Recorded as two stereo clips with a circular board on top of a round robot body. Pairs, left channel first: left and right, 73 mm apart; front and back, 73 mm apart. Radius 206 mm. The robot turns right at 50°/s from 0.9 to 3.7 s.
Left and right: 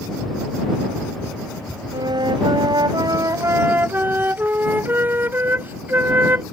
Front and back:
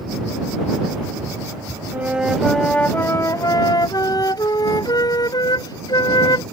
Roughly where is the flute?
Behind right.